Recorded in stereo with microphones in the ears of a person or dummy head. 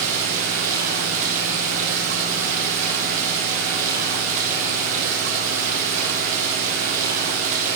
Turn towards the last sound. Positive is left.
turn(degrees=-45)  # may be behind; listen again after turning